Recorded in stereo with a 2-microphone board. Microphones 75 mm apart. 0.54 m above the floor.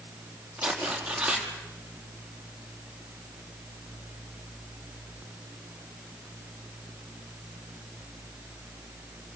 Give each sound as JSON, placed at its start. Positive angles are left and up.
{"t": 0.6, "sound": "tearing paper", "side_deg": -10, "distance_m": 3.5}